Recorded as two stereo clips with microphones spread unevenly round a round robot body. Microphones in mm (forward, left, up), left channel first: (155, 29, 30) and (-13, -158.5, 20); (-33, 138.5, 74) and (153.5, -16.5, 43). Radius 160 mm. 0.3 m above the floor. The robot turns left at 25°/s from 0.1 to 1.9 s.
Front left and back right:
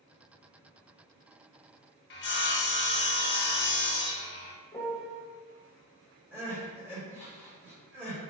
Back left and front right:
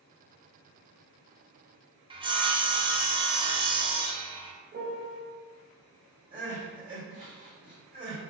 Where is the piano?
30° right, 0.7 m.